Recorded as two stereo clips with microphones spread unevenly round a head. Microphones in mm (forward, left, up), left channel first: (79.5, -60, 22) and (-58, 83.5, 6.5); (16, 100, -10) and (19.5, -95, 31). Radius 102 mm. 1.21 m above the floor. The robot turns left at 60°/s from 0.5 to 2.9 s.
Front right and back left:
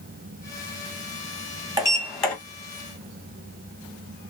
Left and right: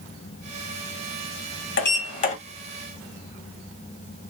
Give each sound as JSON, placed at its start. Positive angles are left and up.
{"t": 1.8, "sound": "a sliding door", "azimuth_deg": 65, "distance_m": 1.4}